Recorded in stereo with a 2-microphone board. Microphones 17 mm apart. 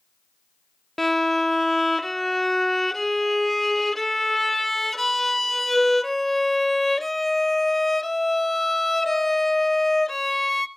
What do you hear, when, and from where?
1.0 s a violin: 10° left (ahead or behind), 0.6 m